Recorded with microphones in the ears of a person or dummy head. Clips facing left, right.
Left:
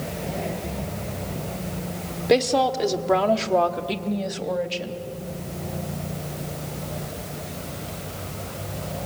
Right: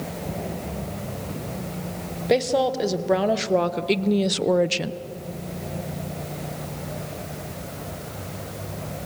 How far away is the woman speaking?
About 1.4 m.